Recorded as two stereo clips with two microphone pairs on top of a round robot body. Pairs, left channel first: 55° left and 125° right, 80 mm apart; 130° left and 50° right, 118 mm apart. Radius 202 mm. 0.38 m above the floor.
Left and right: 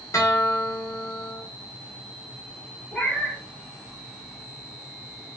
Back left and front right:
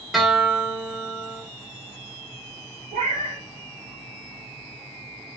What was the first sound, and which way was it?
A guitar, 35° left.